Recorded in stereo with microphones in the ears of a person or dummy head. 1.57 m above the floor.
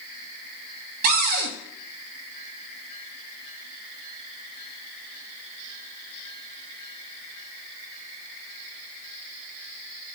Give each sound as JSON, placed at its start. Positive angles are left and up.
{"t": 1.0, "sound": "a cupboard door", "side_deg": -50, "distance_m": 0.9}